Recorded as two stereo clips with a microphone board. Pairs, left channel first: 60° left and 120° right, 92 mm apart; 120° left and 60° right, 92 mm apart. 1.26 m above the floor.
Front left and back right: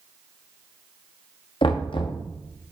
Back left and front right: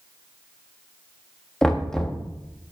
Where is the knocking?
35° left, 1.1 m.